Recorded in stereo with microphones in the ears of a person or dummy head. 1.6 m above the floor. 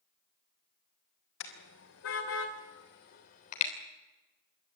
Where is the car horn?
70° left (ahead or behind), 3.5 m; by 3.7 s 40° left (ahead or behind), 3.5 m.